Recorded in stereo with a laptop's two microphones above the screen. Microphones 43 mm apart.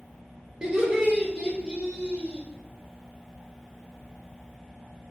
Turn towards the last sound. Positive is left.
turn(degrees=-15)  # may be behind; listen again after turning